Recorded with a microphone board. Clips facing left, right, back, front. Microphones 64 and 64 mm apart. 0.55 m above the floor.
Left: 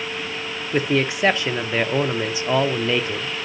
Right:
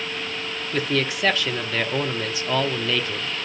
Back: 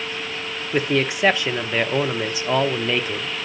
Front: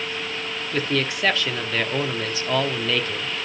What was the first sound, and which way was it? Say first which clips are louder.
A man speaking: left 4 dB, back 4 dB; 135° left.